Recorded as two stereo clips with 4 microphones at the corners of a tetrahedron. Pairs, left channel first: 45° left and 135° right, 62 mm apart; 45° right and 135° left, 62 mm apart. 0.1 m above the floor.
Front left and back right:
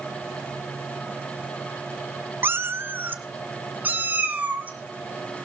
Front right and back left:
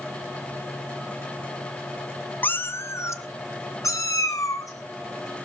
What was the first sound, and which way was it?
A cat meowing, 95° right.